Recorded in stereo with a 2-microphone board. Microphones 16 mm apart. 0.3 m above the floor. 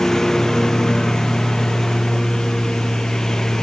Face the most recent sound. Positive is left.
turn(degrees=40)  # may be behind; listen again after turning